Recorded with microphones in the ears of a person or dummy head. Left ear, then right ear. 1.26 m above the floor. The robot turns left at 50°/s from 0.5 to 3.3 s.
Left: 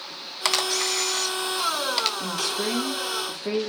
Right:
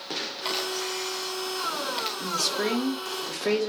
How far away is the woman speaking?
About 1.5 m.